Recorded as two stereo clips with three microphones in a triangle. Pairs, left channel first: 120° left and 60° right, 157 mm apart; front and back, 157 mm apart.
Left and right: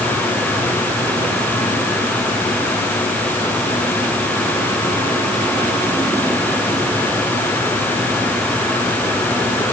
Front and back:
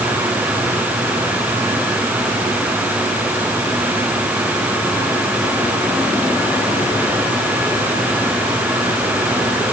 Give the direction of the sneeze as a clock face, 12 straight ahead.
I don't hear a sneeze.